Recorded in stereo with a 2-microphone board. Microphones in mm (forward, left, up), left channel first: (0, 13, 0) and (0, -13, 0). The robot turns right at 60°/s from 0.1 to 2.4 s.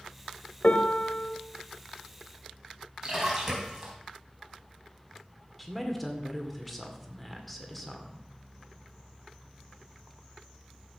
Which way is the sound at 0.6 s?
60° left.